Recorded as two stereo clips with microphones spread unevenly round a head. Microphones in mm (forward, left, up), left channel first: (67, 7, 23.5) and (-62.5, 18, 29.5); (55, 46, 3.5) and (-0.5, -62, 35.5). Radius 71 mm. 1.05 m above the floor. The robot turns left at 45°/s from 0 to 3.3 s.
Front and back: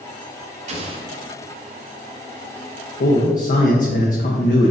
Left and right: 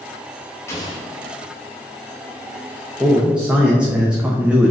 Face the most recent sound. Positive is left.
turn(degrees=-30)